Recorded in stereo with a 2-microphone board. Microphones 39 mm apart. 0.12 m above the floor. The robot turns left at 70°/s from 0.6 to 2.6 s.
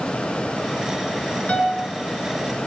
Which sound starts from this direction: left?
A piano, at 1.5 s.